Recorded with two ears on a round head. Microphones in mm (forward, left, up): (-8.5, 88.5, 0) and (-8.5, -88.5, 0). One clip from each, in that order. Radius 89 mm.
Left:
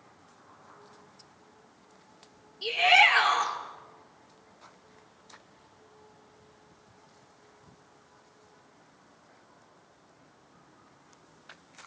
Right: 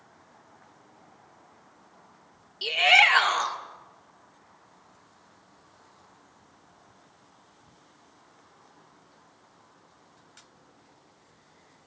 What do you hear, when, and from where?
2.6 s a shout: 65° right (ahead or behind), 2.5 m